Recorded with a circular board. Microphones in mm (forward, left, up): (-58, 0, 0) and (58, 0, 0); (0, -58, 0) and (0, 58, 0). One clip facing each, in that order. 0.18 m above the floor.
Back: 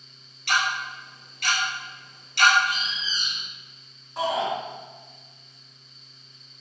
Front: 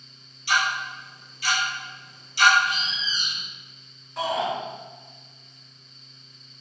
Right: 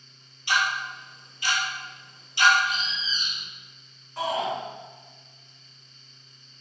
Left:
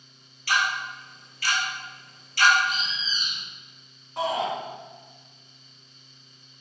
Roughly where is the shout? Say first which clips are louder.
Even, left 1 dB; behind left.